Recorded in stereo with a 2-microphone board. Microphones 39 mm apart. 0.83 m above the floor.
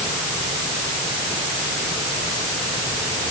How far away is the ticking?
No ticking in this recording.